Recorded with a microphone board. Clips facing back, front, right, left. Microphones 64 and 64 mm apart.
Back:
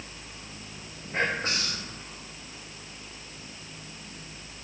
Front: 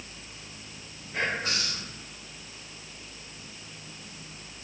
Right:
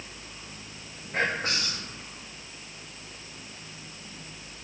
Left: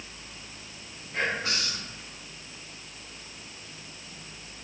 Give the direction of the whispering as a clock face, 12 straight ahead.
5 o'clock.